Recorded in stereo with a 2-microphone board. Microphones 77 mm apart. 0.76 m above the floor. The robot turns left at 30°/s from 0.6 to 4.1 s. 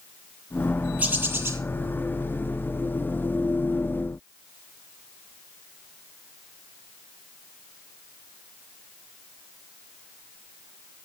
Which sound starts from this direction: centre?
A bird, at 1.0 s.